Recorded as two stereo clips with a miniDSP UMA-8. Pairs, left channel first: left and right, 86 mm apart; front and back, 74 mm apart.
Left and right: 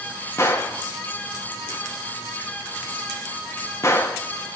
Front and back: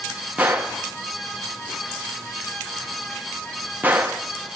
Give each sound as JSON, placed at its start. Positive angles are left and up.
{"t": 0.4, "sound": "a gunshot", "azimuth_deg": 125, "distance_m": 1.1}